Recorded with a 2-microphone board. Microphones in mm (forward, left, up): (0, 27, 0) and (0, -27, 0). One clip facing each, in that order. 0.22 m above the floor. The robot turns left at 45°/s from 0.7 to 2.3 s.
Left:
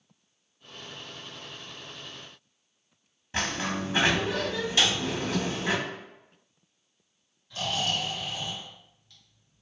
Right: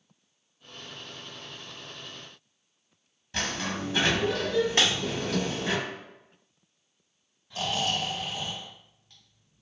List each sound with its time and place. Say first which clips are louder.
3.3 s a sliding door: left 2 dB; 20° left (ahead or behind), 0.6 m
4.8 s breaking glass: left 2 dB; 45° right (ahead or behind), 0.9 m
7.5 s snoring: right 1 dB; 25° right (ahead or behind), 1.6 m